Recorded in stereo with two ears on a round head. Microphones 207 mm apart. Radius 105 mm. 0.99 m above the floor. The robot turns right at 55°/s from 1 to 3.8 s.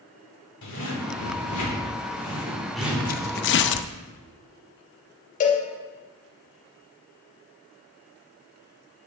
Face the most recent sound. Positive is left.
turn(degrees=35)  # may be behind; listen again after turning